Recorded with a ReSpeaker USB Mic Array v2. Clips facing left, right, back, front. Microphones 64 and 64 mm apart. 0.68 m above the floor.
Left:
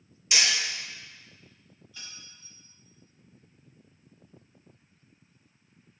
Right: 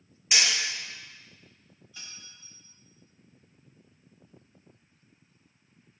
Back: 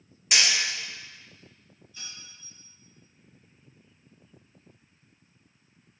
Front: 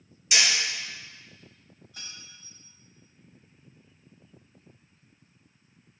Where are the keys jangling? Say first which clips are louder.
Even, even; 15° right, 1.0 m.